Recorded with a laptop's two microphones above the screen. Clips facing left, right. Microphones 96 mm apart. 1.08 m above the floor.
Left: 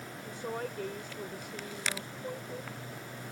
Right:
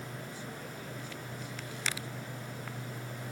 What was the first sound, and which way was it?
A woman speaking, 65° left (ahead or behind).